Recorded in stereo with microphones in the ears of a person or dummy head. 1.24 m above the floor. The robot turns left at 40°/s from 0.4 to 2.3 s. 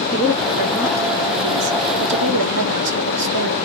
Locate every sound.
0.1 s a woman speaking: straight ahead, 2.5 m; by 3.6 s 75° right, 2.5 m